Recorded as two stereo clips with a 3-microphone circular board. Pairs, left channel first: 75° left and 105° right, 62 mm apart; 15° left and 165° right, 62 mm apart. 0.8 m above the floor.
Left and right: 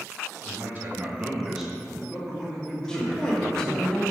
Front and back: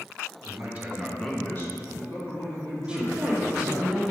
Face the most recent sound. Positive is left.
turn(degrees=135)